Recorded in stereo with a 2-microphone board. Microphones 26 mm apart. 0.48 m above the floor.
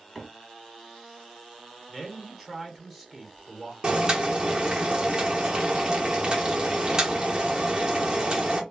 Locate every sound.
0.1 s a microwave: 10° left (ahead or behind), 1.4 m
1.9 s a man speaking: 5° left (ahead or behind), 1.3 m
3.8 s boiling: 25° right (ahead or behind), 0.9 m